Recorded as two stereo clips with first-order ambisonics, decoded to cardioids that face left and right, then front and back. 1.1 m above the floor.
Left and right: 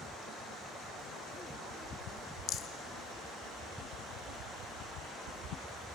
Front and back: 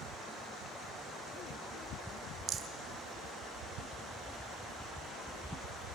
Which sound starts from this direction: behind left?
A rattle, at 2.5 s.